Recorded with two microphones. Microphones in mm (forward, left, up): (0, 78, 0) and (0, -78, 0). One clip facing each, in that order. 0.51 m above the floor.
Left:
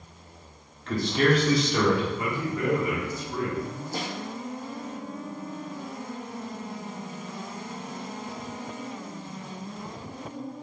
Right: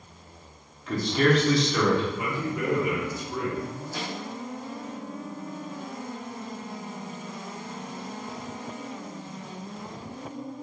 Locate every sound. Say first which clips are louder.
0.9 s a man speaking: even; 5° right (ahead or behind), 0.9 m; by 2.0 s 15° left (ahead or behind), 1.2 m
2.2 s a man speaking: left 1 dB; 15° right (ahead or behind), 1.3 m
3.9 s a snare drum: left 2 dB; 45° left (ahead or behind), 0.8 m